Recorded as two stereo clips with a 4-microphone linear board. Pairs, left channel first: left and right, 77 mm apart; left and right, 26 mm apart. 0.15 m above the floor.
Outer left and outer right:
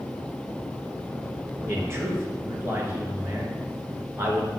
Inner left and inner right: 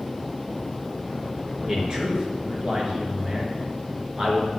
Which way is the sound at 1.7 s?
35° right (ahead or behind).